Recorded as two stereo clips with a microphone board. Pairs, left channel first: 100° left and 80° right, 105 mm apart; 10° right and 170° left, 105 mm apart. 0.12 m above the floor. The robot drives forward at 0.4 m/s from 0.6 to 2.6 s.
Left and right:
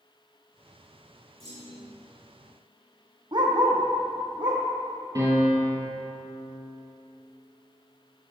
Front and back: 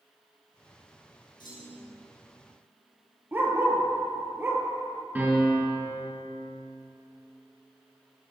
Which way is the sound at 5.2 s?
120° right.